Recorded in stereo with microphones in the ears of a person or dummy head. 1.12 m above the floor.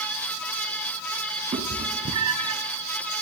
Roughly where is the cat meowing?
Right.